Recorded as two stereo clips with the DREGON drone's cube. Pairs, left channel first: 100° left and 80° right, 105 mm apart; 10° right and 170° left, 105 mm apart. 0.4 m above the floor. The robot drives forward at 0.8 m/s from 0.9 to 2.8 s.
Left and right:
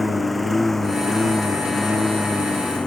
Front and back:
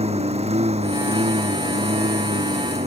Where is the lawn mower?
170° right; by 2.9 s 175° right.